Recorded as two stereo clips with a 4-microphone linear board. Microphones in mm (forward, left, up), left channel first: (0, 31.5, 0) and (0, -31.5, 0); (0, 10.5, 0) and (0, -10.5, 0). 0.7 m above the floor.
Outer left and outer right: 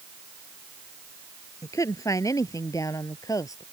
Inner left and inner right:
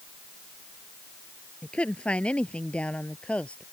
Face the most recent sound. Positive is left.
turn(degrees=60)  # may be behind; listen again after turning